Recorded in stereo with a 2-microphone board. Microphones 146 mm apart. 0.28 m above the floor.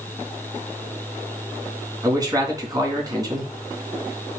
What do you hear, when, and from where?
2.0 s a man speaking: 25° right (ahead or behind), 3 m